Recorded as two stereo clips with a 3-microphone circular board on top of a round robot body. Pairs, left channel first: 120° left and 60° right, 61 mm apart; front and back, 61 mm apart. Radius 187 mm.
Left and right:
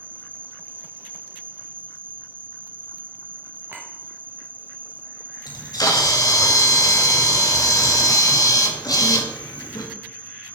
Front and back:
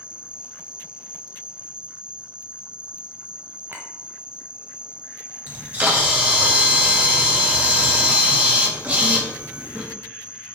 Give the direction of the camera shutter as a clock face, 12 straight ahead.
8 o'clock.